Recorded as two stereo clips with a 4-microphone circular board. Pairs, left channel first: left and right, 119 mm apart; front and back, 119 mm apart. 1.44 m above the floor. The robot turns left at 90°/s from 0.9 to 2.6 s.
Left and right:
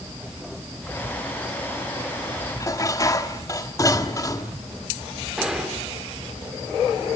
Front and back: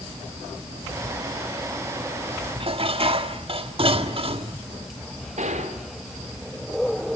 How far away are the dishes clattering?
About 1.7 m.